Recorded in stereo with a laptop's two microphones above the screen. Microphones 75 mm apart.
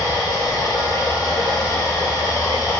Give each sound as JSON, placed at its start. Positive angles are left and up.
{"t": 0.0, "sound": "running water", "side_deg": 60, "distance_m": 1.0}